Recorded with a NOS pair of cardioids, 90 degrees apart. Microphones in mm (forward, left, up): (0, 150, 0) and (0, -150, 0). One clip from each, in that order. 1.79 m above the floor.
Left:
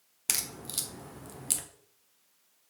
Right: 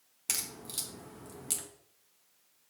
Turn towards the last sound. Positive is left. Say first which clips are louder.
# left 3 dB
turn(degrees=30)